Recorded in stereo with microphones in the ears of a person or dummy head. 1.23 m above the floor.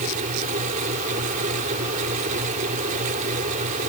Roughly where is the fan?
Right.